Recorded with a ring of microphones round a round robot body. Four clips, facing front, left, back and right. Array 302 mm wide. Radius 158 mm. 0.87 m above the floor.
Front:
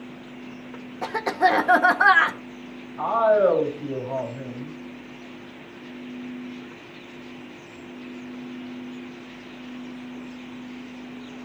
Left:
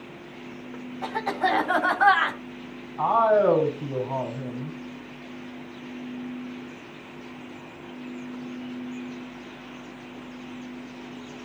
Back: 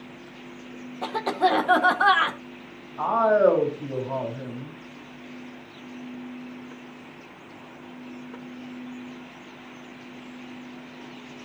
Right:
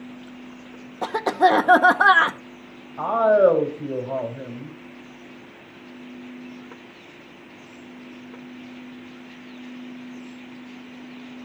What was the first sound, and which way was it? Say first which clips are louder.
A cough: right 7 dB, front 2 dB; 80° right.